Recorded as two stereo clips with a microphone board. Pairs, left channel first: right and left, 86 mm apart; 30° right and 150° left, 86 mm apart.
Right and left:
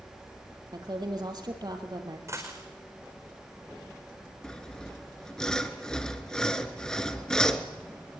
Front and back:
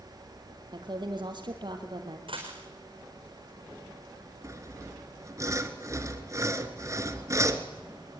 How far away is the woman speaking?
About 3.5 m.